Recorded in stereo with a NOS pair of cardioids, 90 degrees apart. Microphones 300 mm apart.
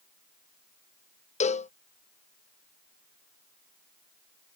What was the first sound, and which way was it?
A cowbell, 25° left.